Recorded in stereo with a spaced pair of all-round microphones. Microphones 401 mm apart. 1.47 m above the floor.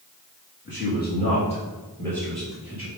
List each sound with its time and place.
0.7 s a man speaking: 30° left (ahead or behind), 2.5 m; by 2.9 s 5° right (ahead or behind), 2.5 m